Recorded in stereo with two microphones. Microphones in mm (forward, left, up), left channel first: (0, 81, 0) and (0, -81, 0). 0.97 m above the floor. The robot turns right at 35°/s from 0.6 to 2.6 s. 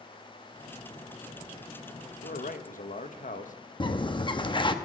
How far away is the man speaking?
About 1.1 m.